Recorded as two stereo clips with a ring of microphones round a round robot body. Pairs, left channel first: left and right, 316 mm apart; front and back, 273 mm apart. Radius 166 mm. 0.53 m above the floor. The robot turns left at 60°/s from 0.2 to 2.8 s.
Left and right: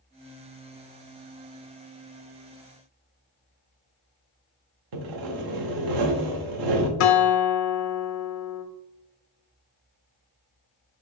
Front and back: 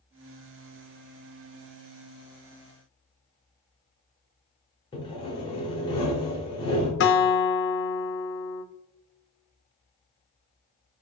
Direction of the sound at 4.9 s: 75° right.